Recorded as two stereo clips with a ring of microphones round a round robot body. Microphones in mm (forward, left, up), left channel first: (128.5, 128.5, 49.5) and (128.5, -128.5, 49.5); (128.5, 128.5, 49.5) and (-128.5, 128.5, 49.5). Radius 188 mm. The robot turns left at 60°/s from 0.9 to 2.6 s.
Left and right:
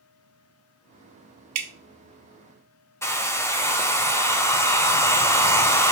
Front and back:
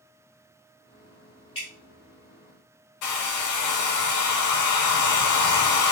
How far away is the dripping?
About 0.6 m.